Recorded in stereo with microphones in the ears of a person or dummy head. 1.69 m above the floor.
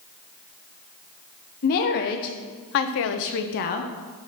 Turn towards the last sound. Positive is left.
turn(degrees=35)  # may be behind; listen again after turning